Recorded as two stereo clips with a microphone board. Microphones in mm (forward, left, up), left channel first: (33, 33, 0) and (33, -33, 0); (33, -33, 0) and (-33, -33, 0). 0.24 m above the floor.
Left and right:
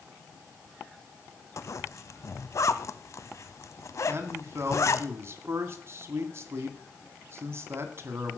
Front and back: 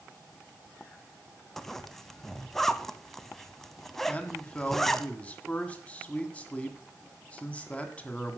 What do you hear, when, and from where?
1.6 s a zipper: 85° left, 0.7 m
4.1 s a man speaking: 60° right, 1.7 m